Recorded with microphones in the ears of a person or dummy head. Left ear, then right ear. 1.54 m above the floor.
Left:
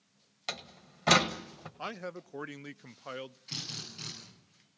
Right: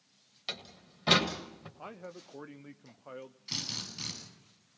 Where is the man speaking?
65° left (ahead or behind), 0.5 m.